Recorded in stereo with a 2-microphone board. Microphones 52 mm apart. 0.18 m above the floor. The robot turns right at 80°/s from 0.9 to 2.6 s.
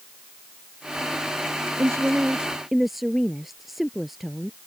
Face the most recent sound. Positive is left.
turn(degrees=-5)